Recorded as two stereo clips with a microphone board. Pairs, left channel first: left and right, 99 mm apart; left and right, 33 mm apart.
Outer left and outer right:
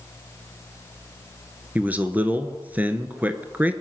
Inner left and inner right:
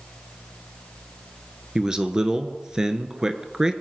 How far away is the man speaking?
About 1.2 m.